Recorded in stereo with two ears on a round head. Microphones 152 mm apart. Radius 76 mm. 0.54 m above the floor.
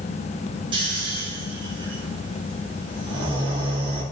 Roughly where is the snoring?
Right.